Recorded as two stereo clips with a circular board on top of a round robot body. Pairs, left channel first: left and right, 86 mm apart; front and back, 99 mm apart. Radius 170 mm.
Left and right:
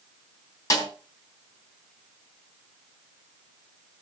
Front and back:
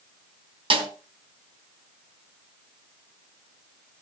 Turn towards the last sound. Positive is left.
turn(degrees=145)